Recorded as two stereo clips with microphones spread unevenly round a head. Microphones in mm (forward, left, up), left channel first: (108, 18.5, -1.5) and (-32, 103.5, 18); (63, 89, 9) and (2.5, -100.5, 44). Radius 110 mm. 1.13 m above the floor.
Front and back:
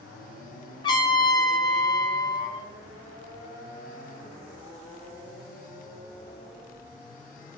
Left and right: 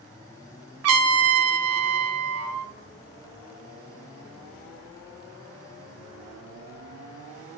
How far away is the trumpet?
About 0.8 m.